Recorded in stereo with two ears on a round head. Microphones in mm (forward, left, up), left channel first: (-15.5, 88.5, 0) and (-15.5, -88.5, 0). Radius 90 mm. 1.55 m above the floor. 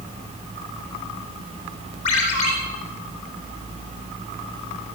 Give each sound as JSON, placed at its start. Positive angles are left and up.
{"t": 2.0, "sound": "a ringtone", "side_deg": 35, "distance_m": 3.0}